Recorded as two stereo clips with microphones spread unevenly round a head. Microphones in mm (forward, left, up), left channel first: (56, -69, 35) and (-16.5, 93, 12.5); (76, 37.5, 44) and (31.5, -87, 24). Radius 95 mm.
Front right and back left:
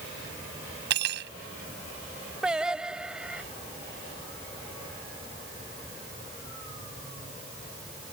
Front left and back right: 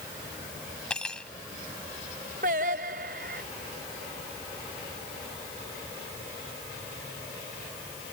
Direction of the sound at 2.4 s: 155° right.